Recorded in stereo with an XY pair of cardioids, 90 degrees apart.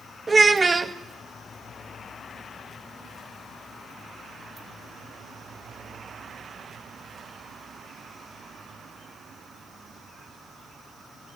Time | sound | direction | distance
0.3 | a child speaking | 25° right | 1.0 m